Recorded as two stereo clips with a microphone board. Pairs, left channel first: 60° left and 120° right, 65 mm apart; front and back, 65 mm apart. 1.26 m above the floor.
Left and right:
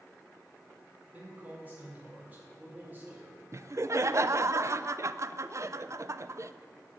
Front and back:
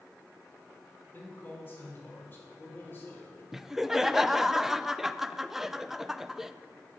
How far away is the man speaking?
About 4.5 m.